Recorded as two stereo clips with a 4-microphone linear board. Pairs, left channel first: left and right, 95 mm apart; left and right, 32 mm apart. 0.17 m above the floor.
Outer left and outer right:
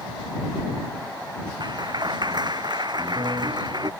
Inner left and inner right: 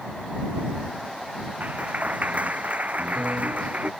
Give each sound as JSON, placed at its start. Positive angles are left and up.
{"t": 1.6, "sound": "a clap", "side_deg": -50}